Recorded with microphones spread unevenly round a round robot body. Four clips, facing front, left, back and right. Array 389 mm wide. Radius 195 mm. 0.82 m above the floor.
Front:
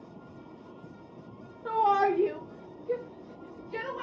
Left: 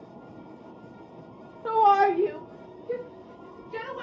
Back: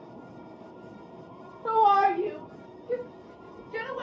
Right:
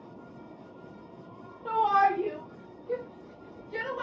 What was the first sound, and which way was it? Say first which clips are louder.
A shout: left 4 dB, back 4 dB; 125° left.